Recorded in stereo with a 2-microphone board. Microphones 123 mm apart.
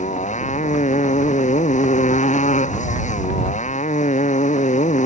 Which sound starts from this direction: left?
A motorcycle, at 0.0 s.